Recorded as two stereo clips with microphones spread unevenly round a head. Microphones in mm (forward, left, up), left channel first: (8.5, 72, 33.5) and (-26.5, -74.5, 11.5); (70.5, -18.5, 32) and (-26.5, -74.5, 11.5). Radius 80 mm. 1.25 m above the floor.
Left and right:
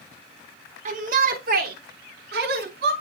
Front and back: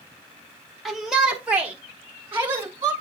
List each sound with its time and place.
0.8 s a shout: 60° right, 0.9 m; by 2.9 s 85° right, 1.9 m